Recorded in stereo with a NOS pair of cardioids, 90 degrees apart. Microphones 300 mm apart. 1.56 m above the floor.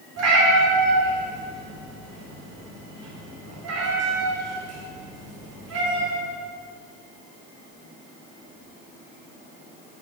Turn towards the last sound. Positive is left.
turn(degrees=-60)